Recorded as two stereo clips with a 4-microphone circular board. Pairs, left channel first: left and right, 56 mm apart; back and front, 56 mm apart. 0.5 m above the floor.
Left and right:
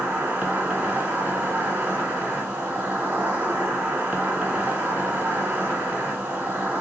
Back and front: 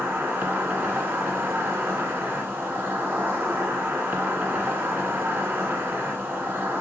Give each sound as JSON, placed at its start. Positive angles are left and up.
{"t": 0.0, "sound": "an insect", "azimuth_deg": -40, "distance_m": 1.2}